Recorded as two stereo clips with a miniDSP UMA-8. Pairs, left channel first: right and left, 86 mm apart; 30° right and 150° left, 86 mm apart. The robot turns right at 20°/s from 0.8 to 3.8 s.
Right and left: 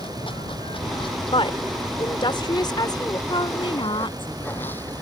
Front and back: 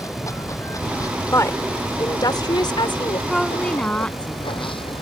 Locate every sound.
0.0 s running water: 80° right; by 5.0 s 20° right
1.3 s a woman speaking: 85° right; by 3.2 s 50° right
3.3 s a woman speaking: 115° right; by 4.8 s 105° right